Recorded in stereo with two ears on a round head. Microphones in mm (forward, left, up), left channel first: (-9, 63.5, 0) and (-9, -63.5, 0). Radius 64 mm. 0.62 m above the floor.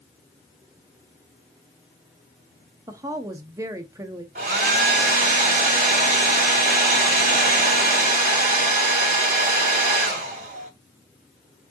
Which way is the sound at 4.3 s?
55° right (ahead or behind).